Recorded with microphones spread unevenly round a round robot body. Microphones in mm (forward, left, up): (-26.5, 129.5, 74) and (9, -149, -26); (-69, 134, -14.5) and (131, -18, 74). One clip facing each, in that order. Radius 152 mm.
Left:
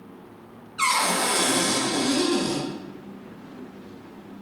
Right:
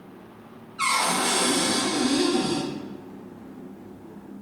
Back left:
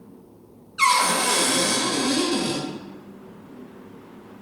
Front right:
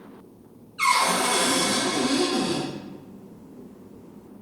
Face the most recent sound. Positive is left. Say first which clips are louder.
# even, back left 1 dB
turn(degrees=110)